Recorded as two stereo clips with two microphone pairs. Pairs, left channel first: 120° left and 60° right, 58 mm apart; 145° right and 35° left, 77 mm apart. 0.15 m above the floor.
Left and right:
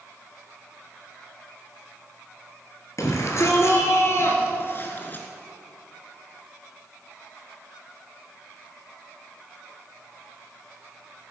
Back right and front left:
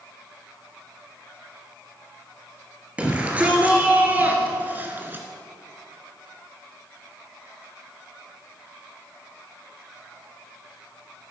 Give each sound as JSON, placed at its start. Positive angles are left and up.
{"t": 3.0, "sound": "a shout", "azimuth_deg": 105, "distance_m": 2.5}